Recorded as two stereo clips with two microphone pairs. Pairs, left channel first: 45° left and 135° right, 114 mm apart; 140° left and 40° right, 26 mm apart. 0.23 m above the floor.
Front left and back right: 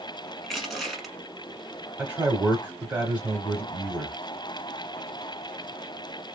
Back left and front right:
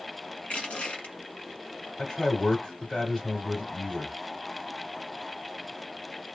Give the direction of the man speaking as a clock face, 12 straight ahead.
6 o'clock.